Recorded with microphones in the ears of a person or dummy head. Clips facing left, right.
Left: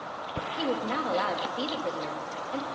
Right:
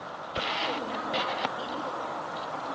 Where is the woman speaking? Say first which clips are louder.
Left 8 dB; 75° left (ahead or behind), 3.5 m.